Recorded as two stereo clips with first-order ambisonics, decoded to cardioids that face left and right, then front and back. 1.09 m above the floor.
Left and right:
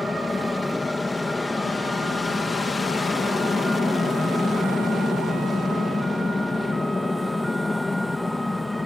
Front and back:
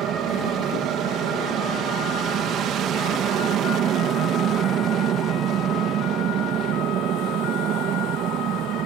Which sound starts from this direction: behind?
An aircraft, at 0.0 s.